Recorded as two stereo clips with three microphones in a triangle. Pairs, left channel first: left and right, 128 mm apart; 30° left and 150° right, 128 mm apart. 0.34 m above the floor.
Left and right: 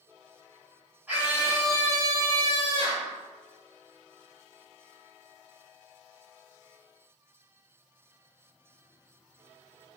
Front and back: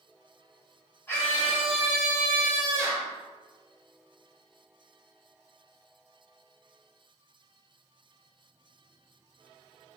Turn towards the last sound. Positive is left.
turn(degrees=-95)